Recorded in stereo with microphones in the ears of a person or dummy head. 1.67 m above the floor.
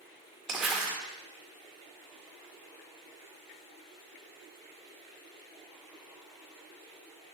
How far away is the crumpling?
About 1.5 m.